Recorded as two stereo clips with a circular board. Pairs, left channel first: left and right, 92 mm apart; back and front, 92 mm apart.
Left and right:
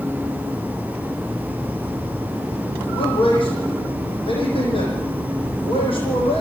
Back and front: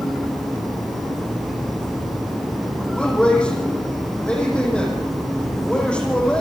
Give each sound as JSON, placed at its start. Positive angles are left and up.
{"t": 2.9, "sound": "a man speaking", "azimuth_deg": 100, "distance_m": 9.5}